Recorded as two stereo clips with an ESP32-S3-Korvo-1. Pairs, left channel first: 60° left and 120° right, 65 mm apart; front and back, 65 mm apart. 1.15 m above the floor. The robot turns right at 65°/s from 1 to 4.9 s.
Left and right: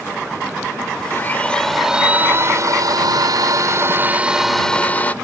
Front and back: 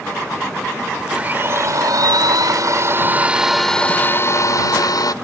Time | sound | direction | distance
1.1 | a blender | 110° left | ?